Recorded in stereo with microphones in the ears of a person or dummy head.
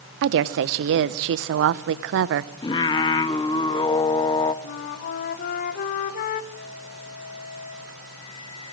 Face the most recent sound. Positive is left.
turn(degrees=45)  # may be behind; listen again after turning